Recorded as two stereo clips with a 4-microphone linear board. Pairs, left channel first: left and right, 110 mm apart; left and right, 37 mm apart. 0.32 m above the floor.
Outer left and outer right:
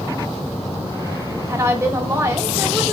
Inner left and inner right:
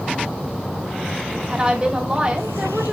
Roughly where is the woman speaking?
Right.